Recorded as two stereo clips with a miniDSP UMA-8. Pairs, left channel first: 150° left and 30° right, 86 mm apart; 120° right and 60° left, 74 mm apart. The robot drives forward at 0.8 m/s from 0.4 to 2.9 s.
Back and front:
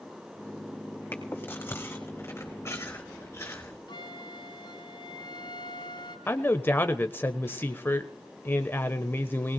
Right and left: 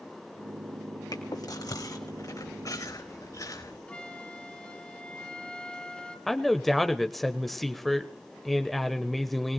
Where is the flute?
165° left, 1.3 m.